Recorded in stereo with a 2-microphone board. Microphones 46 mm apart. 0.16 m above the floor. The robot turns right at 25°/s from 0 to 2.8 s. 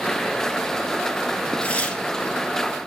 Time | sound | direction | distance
1.6 | tearing paper | 30° left (ahead or behind) | 3 m